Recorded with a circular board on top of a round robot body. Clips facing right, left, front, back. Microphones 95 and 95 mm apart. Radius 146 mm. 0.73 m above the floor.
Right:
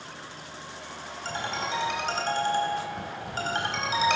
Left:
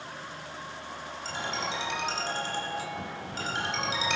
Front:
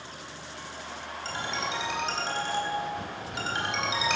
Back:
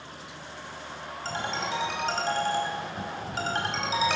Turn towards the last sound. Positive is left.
turn(degrees=-130)